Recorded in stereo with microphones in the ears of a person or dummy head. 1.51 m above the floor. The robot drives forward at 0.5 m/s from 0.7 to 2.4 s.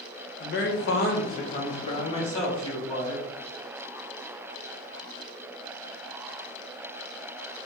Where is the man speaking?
60° left (ahead or behind), 0.8 m; by 3.2 s 30° left (ahead or behind), 1.4 m.